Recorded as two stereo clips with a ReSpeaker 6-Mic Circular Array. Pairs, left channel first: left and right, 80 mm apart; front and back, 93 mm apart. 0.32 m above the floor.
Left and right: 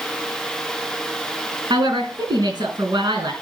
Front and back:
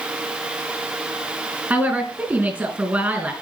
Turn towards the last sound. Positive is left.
turn(degrees=-105)